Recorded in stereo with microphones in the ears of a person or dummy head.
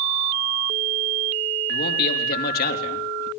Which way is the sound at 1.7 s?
55° left (ahead or behind).